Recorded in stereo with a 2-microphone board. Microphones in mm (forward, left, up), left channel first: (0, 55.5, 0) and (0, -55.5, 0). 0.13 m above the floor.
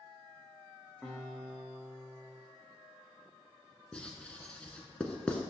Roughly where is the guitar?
Centre.